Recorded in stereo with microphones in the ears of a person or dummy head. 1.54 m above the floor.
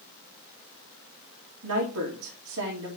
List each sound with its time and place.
1.6 s a woman speaking: 80° right, 2 m